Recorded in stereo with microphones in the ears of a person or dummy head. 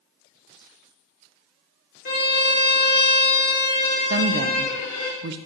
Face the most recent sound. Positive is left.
turn(degrees=-65)  # may be behind; listen again after turning